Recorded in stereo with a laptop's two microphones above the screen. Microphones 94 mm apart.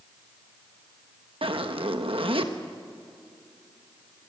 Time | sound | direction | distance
1.4 | a zipper | 70° right (ahead or behind) | 1.2 m